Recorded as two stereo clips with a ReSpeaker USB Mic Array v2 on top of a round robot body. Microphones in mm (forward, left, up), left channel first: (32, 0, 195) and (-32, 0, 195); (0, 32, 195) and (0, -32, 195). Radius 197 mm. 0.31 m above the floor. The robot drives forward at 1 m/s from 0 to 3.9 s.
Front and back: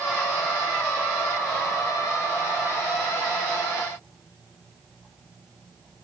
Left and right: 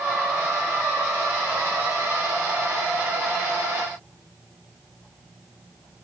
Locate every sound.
Only background noise.